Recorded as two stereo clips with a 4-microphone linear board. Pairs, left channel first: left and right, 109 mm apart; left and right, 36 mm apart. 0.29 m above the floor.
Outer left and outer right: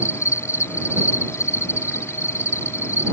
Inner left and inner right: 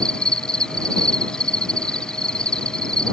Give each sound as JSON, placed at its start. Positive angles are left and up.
{"t": 0.0, "sound": "an insect", "side_deg": 25}